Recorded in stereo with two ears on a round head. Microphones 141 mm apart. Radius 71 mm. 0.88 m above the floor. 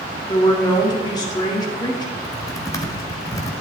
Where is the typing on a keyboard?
25° left (ahead or behind), 1.3 m.